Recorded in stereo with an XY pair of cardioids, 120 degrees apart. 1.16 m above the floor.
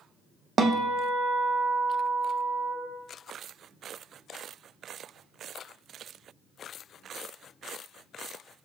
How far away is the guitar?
About 1.0 m.